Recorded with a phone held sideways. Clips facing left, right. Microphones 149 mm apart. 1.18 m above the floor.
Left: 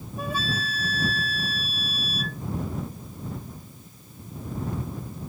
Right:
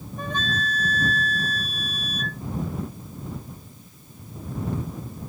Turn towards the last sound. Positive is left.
turn(degrees=10)  # may be behind; listen again after turning